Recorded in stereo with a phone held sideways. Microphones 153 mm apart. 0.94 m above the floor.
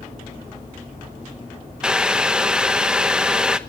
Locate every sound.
1.8 s boiling: 5° right (ahead or behind), 0.9 m